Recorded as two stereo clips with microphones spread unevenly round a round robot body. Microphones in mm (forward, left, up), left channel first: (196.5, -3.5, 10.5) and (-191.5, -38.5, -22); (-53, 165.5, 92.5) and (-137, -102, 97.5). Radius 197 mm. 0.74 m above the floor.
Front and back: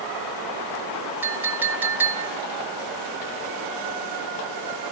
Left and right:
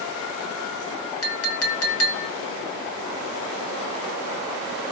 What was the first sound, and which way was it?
A clink, 100° left.